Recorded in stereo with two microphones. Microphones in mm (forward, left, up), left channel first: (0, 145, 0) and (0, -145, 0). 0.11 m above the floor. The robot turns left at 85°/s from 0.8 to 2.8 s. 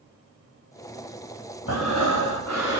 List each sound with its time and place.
1.7 s breathing: 140° left, 2.5 m; by 2.8 s 40° left, 2.5 m